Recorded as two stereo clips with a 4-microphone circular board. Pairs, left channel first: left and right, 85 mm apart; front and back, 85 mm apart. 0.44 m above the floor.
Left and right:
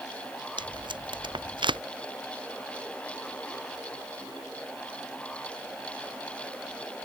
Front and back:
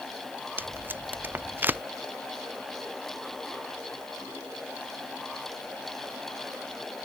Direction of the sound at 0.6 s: 110° right.